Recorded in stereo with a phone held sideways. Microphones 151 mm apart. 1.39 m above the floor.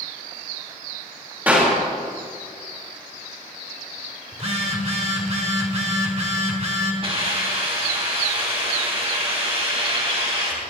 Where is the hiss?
40° right (ahead or behind), 3 m.